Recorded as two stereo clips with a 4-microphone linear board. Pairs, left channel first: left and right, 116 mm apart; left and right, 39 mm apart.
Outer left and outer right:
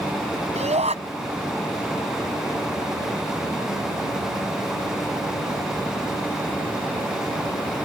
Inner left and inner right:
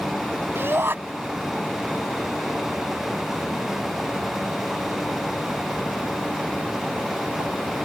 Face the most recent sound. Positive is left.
turn(degrees=-70)  # may be behind; listen again after turning